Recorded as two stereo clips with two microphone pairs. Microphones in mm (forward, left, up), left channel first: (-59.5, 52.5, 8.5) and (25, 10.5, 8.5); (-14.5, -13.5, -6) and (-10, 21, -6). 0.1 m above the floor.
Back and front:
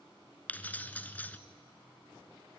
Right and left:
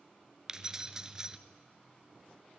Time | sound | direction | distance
0.5 | keys jangling | 120° left | 0.8 m